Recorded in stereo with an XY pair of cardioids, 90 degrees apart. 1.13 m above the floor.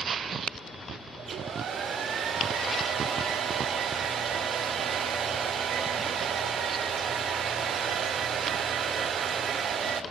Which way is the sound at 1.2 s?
60° right.